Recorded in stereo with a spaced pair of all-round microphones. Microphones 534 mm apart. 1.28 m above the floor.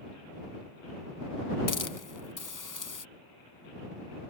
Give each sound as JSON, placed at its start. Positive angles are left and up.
{"t": 1.7, "sound": "a hiss", "side_deg": 35}